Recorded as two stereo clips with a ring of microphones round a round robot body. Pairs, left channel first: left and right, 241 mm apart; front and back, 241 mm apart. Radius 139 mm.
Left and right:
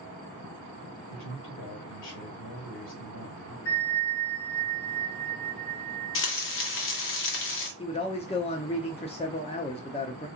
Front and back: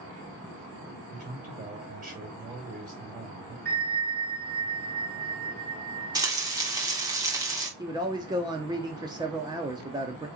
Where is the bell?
130° left, 2.5 m.